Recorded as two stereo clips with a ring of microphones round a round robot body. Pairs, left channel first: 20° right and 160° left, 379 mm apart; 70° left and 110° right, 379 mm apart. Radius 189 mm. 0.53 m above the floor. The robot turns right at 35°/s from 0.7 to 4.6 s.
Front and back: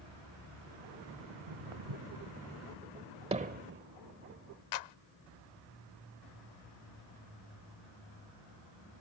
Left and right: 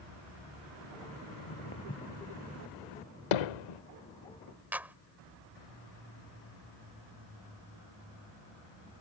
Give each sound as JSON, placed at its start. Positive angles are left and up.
{"t": 1.3, "sound": "footsteps", "azimuth_deg": 120}
{"t": 3.3, "sound": "hammering", "azimuth_deg": 80}
{"t": 4.7, "sound": "a clap", "azimuth_deg": -25}